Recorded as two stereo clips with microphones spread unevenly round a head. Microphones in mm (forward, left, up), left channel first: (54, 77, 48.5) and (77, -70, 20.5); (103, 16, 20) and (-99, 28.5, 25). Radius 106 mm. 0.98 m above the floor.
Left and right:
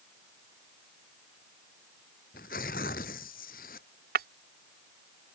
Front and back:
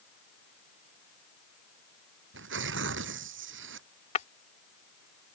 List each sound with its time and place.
2.3 s tearing paper: 150° left
4.2 s breaking glass: 65° right